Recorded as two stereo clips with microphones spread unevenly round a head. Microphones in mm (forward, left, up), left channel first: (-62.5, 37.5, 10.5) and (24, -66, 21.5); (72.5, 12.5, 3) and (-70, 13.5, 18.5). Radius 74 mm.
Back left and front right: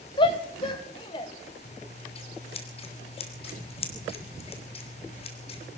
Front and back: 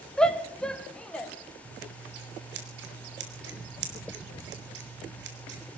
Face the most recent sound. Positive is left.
turn(degrees=175)